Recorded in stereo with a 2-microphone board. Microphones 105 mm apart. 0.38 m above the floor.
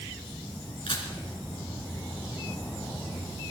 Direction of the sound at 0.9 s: 60° left (ahead or behind).